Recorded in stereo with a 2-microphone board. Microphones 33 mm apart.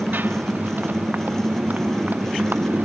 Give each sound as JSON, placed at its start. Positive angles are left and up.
{"t": 0.0, "sound": "a motorcycle", "side_deg": -80}